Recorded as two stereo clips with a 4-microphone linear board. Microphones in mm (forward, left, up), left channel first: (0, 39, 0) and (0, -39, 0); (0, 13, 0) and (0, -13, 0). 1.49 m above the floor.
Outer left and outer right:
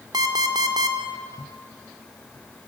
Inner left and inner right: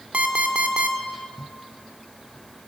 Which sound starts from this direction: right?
An alarm clock, at 0.1 s.